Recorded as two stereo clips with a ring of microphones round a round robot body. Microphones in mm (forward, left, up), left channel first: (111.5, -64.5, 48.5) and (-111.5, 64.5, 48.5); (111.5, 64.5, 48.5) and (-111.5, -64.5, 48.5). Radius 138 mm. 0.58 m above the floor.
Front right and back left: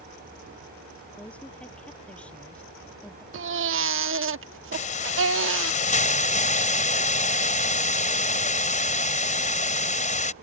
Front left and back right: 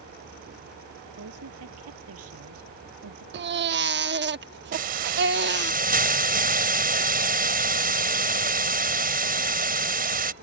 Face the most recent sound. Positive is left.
turn(degrees=-90)